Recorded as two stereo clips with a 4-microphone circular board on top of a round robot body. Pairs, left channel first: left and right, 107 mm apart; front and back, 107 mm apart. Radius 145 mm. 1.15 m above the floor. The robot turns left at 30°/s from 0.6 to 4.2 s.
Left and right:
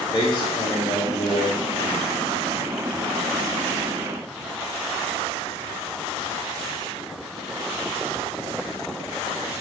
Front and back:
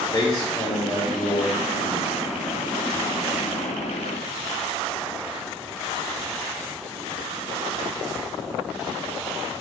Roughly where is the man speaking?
Ahead left.